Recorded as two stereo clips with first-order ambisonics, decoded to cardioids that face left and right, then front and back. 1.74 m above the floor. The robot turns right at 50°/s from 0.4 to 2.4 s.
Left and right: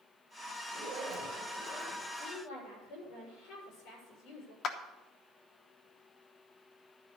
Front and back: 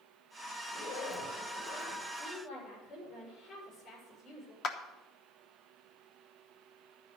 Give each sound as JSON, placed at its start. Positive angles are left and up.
{"t": 0.7, "sound": "a zipper", "azimuth_deg": -60, "distance_m": 6.5}
{"t": 2.1, "sound": "a woman speaking", "azimuth_deg": 40, "distance_m": 6.5}
{"t": 4.6, "sound": "a clap", "azimuth_deg": 40, "distance_m": 1.0}